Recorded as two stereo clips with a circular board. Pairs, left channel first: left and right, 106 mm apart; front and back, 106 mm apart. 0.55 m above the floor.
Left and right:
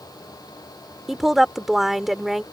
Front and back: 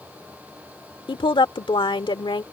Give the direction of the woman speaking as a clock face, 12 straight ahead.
12 o'clock.